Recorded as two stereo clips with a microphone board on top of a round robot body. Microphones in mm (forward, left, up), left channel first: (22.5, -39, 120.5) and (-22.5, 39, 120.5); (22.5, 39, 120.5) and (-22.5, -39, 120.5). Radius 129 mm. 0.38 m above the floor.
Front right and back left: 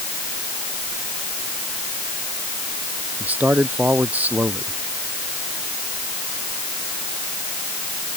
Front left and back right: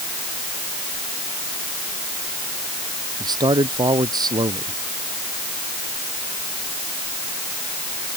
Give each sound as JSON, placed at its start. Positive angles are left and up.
{"t": 3.2, "sound": "a man speaking", "azimuth_deg": -165}